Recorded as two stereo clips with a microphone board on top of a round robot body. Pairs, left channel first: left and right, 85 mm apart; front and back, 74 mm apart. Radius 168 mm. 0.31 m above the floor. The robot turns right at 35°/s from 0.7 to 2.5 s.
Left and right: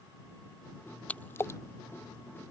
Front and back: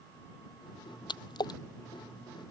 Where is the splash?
15° left; by 1.6 s 35° left.